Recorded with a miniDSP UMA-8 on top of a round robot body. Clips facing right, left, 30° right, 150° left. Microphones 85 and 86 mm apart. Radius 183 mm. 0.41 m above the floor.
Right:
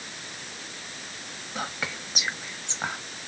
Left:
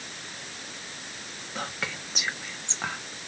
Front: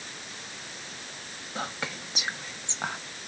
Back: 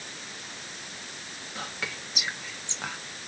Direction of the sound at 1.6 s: 15° right.